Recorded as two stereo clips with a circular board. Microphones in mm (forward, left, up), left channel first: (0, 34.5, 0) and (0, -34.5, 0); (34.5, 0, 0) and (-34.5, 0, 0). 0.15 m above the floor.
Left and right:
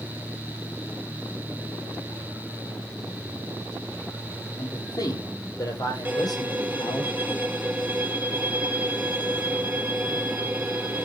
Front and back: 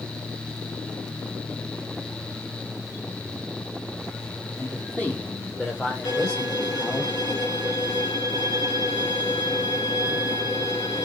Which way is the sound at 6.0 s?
30° right.